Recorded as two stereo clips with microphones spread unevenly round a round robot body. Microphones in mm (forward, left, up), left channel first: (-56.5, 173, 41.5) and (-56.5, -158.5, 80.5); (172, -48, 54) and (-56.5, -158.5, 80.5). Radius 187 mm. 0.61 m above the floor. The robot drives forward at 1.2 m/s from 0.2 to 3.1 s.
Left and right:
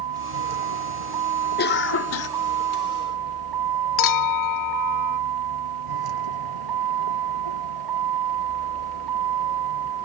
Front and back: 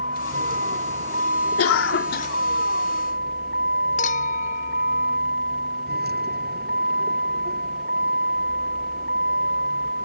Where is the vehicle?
95° right; by 10.1 s 105° right.